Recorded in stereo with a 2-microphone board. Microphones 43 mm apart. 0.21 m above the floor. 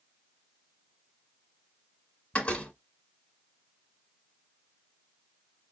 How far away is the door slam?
About 1.4 m.